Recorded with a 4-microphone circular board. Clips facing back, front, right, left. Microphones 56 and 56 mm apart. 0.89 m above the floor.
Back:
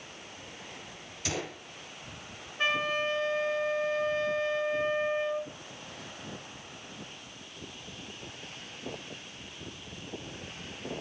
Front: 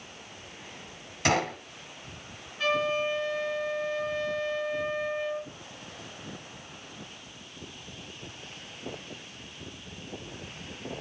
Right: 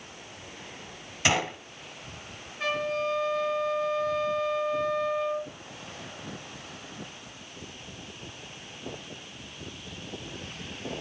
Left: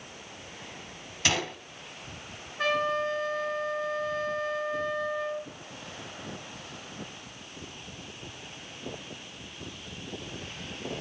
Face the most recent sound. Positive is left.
turn(degrees=120)